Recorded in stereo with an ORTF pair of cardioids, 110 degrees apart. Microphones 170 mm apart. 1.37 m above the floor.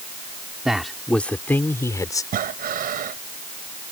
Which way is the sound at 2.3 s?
55° right.